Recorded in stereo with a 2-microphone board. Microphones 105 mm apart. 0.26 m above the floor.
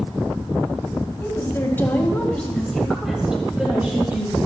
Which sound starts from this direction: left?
A woman speaking, at 1.2 s.